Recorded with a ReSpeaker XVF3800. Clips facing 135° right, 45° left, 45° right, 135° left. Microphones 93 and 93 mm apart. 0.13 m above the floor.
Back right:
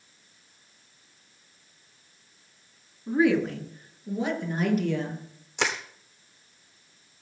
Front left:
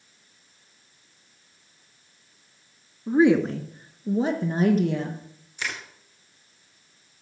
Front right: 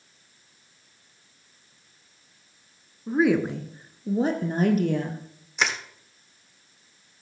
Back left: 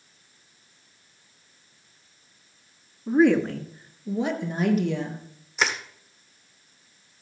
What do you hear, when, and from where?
3.1 s a woman speaking: 60° left, 1.3 m; by 5.2 s 10° right, 3.5 m
5.6 s crushing: 135° right, 1.7 m